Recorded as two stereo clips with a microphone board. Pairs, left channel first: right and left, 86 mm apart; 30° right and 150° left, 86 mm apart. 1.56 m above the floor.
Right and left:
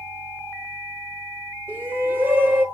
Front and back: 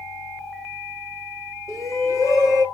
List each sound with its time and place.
1.7 s a shout: 25° left, 2.5 m